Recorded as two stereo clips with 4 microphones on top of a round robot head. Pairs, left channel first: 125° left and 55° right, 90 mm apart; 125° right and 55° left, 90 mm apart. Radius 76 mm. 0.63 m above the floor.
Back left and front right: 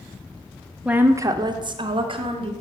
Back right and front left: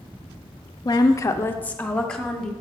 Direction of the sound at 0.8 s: 130° right.